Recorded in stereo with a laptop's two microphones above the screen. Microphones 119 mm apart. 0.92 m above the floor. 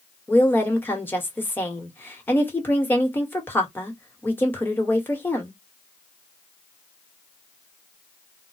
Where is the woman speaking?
15° left (ahead or behind), 1.2 m.